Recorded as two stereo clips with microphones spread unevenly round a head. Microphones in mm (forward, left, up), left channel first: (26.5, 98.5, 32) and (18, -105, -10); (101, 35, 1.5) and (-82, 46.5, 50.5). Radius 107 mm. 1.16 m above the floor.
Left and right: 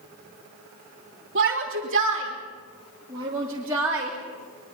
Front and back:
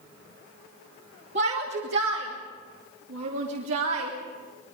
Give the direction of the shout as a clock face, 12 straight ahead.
5 o'clock.